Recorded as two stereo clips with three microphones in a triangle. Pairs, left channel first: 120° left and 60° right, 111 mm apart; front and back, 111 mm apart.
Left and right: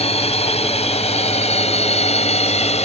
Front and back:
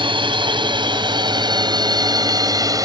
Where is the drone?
140° left; by 2.9 s 125° left.